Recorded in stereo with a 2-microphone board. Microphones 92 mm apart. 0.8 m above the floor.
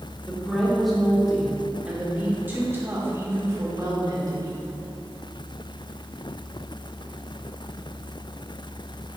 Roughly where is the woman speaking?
Centre.